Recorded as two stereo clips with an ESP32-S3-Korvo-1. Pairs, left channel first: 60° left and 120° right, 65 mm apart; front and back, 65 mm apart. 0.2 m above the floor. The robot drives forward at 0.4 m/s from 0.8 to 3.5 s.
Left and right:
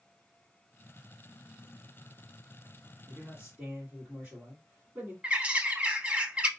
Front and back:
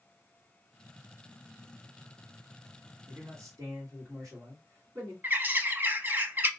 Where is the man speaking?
Straight behind, 1.9 m.